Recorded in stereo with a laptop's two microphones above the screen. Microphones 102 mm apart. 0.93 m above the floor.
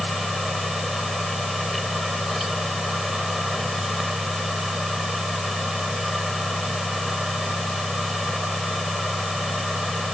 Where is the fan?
Centre (ahead or behind).